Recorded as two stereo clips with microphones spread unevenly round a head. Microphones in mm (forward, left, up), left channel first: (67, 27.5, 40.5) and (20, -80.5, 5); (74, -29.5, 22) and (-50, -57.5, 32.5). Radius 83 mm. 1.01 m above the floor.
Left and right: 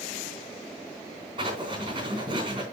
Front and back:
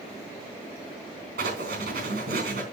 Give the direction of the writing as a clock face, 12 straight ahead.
6 o'clock.